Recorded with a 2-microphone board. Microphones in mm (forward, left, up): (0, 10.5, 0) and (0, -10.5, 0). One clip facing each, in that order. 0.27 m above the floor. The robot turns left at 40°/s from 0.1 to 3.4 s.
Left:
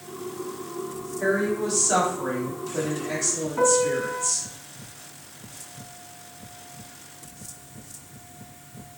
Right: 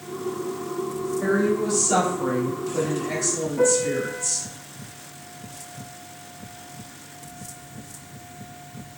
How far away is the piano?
About 1.0 m.